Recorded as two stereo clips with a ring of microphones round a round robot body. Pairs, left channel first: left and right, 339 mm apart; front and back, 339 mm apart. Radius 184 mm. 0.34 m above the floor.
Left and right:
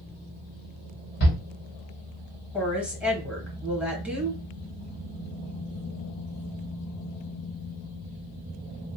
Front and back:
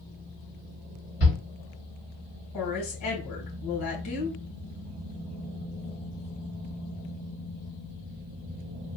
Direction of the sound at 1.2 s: 45° left.